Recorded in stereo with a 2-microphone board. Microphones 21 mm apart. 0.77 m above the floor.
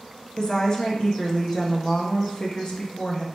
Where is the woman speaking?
30° left (ahead or behind), 0.8 m.